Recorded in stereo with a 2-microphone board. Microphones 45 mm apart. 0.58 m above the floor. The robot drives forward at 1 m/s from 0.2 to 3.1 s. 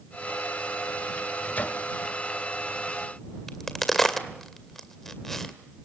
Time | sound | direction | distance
1.2 | a microwave | 40° left (ahead or behind) | 1.8 m
3.5 | a crack | 5° left (ahead or behind) | 2 m